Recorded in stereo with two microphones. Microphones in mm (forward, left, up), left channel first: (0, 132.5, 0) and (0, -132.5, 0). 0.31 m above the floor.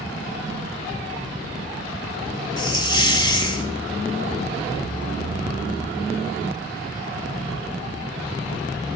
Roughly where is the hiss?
Centre.